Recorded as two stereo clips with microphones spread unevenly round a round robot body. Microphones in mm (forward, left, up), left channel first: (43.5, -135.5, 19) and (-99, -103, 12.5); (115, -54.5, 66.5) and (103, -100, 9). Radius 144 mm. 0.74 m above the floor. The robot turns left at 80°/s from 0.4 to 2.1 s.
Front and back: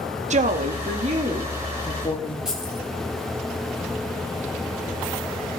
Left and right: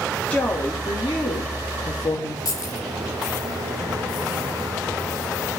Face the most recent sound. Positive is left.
turn(degrees=80)